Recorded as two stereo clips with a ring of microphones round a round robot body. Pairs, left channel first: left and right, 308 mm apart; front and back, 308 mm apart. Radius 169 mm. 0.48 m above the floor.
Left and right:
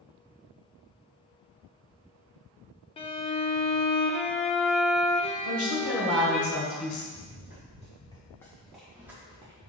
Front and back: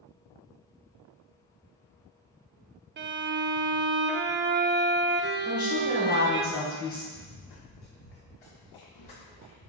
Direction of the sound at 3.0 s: 150° left.